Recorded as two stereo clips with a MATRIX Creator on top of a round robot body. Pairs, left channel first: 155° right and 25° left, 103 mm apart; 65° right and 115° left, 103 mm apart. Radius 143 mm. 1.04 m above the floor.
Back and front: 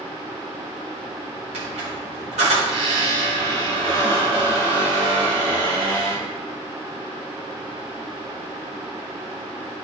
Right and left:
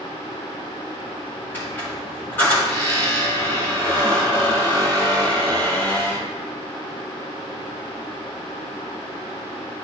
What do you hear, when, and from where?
1.5 s a squeak: 5° left, 0.9 m